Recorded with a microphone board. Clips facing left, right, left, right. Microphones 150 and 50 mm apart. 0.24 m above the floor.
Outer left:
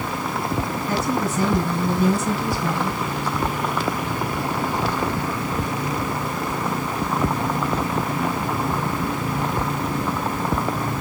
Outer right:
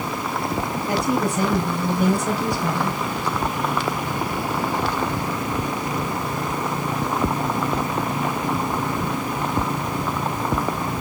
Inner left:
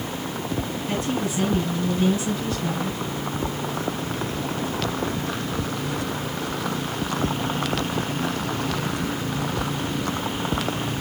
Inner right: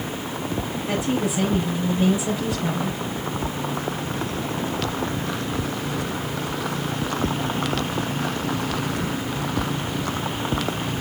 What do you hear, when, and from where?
0.9 s a woman speaking: 15° right (ahead or behind), 3.5 m